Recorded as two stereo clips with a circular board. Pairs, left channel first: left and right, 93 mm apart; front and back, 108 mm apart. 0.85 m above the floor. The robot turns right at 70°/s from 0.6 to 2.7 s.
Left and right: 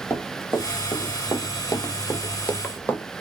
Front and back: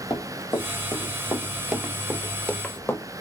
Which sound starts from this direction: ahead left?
Running footsteps, at 0.1 s.